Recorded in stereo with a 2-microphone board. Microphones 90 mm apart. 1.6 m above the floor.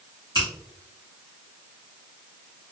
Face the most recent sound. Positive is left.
turn(degrees=-50)  # may be behind; listen again after turning